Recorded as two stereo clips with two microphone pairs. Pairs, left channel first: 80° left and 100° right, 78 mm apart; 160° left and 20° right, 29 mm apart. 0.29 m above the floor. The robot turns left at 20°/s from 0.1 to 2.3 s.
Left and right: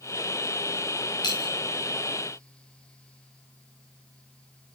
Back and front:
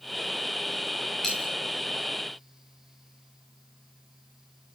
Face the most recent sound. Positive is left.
turn(degrees=65)